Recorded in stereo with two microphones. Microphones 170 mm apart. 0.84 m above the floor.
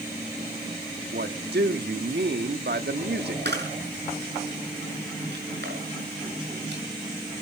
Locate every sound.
1.1 s a man speaking: 75° right (ahead or behind), 1.3 m
3.5 s a camera shutter: 85° right, 7 m